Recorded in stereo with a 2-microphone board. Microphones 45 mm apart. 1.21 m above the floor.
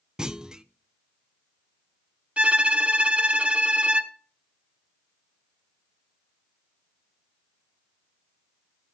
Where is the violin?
30° right (ahead or behind), 1.3 m.